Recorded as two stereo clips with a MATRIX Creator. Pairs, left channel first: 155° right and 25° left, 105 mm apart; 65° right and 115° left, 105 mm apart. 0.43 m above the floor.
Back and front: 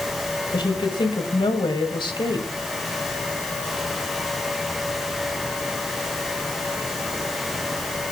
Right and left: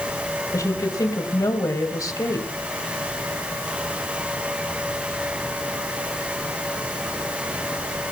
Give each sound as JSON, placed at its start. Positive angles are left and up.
{"t": 0.5, "sound": "a woman speaking", "azimuth_deg": -120, "distance_m": 1.9}